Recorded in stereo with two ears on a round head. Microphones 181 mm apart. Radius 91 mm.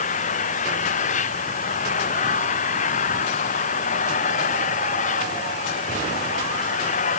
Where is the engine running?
40° left (ahead or behind).